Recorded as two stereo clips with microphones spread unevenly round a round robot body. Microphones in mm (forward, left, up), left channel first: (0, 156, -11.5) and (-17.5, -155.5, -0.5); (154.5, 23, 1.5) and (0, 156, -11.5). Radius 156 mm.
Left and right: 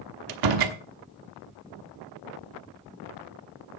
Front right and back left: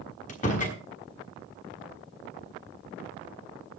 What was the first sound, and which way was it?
A door slam, 110° right.